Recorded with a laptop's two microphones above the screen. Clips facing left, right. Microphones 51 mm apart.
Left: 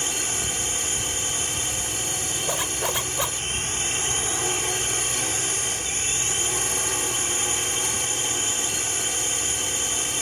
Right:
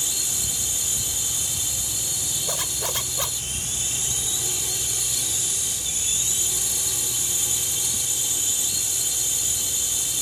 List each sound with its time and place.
0.0 s a drone: 45° left (ahead or behind)
2.5 s a zipper: 15° left (ahead or behind)